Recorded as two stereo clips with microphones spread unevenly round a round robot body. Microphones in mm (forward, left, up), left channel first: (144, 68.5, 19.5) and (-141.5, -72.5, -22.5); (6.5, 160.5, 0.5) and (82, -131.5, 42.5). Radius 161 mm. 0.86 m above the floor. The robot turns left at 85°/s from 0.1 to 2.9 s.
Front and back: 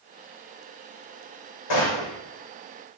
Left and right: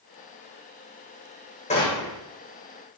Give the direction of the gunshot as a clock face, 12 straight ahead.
11 o'clock.